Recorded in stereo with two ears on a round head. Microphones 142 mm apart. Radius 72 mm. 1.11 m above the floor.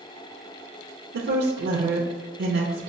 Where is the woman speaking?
65° right (ahead or behind), 0.6 m.